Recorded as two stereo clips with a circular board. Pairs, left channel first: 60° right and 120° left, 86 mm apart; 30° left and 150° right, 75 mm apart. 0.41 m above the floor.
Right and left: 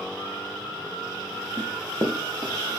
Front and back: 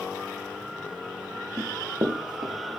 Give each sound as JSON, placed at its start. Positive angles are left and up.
{"t": 1.6, "sound": "running footsteps", "azimuth_deg": 165, "distance_m": 1.4}